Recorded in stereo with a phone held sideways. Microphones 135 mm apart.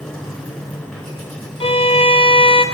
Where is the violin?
45° left (ahead or behind), 0.6 m.